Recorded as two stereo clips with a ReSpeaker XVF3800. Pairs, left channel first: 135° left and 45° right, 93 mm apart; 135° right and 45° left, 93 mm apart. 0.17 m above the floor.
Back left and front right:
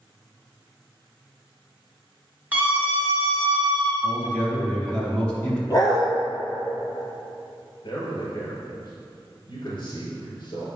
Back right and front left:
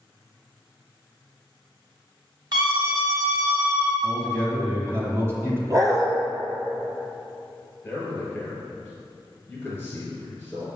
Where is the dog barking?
90° left, 1.1 m.